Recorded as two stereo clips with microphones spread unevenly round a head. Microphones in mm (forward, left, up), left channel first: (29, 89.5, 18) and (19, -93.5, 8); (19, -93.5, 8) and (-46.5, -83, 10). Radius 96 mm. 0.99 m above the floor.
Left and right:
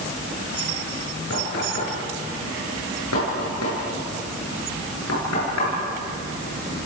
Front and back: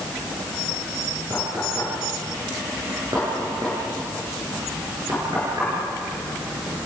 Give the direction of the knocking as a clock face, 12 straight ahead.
9 o'clock.